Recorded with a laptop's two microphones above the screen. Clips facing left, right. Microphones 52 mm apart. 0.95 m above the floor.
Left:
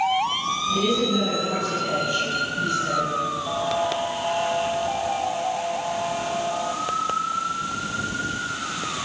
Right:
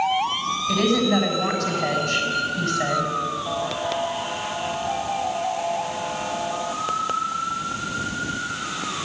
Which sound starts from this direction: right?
A woman speaking, at 0.7 s.